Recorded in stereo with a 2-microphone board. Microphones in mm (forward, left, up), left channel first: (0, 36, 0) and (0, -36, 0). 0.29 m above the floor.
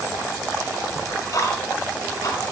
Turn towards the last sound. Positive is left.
turn(degrees=55)  # may be behind; listen again after turning